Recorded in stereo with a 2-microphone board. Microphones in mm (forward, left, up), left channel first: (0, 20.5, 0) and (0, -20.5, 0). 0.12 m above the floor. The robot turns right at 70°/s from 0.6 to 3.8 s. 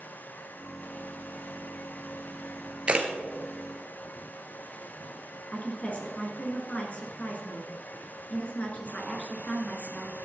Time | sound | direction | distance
2.9 | a camera shutter | 30° right (ahead or behind) | 1.2 m
5.5 | a woman speaking | 35° left (ahead or behind) | 1.8 m